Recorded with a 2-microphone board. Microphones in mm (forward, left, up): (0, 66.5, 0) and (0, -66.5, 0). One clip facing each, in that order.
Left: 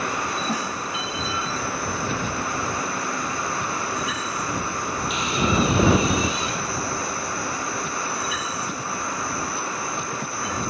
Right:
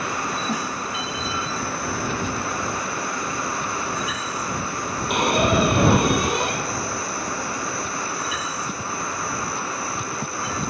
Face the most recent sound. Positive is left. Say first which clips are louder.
# right 5 dB
turn(degrees=-60)  # may be behind; listen again after turning